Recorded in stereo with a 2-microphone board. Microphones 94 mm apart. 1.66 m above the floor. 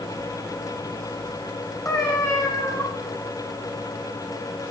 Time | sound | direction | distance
1.9 | a cat meowing | 25° left (ahead or behind) | 3.5 m